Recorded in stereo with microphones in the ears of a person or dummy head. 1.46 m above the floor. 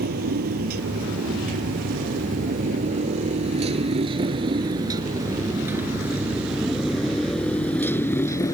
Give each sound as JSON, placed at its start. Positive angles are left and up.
{"t": 0.0, "sound": "a motorcycle", "side_deg": -55}